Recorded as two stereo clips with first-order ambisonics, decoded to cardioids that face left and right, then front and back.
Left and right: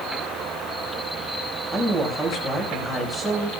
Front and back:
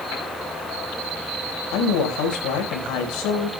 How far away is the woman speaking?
About 4.5 m.